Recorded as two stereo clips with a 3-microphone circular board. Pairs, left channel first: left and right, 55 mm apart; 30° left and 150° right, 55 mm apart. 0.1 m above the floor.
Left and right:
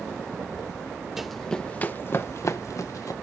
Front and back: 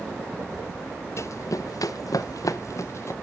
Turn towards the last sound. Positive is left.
turn(degrees=70)